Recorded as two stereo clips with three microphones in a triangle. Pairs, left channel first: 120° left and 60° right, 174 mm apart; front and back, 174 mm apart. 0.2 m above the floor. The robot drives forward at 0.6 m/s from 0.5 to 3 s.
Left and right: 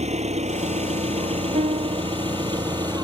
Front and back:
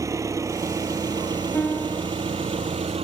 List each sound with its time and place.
0.0 s an engine running: 110° right; by 3.0 s 125° right
1.5 s a piano: 80° right; by 2.0 s 105° right